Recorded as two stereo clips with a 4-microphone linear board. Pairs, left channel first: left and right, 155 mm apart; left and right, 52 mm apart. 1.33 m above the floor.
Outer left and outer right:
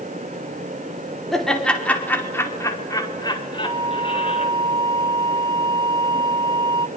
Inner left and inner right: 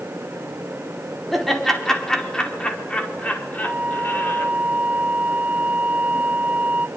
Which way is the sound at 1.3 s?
Centre (ahead or behind).